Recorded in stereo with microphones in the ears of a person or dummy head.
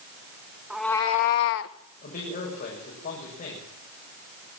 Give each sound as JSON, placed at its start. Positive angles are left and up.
{"t": 0.7, "sound": "a cat meowing", "side_deg": -10, "distance_m": 0.8}
{"t": 2.0, "sound": "a man speaking", "side_deg": 50, "distance_m": 7.5}